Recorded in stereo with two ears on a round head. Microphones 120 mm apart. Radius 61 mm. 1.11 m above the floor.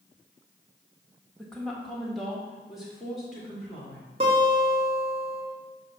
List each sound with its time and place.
1.4 s a woman speaking: 5° left (ahead or behind), 1.2 m; by 4.1 s 10° right (ahead or behind), 2.5 m
4.2 s a guitar: 45° right (ahead or behind), 1.8 m